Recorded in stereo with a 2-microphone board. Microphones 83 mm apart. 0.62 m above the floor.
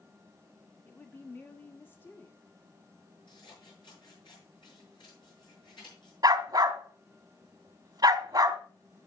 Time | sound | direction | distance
0.8 | a woman speaking | 25° left (ahead or behind) | 1.0 m
3.3 | scissors | 70° left (ahead or behind) | 6.5 m
6.2 | a dog barking | 50° right (ahead or behind) | 1.0 m